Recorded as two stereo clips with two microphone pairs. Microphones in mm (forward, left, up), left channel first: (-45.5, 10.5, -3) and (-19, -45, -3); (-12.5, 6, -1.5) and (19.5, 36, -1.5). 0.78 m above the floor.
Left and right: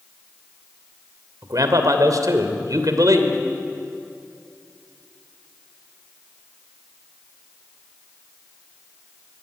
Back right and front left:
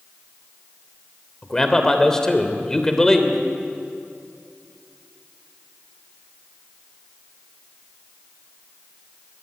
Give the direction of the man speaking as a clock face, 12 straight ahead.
2 o'clock.